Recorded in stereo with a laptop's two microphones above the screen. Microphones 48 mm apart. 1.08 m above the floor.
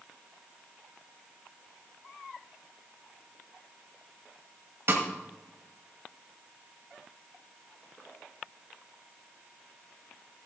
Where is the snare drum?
50° right (ahead or behind), 1.4 m.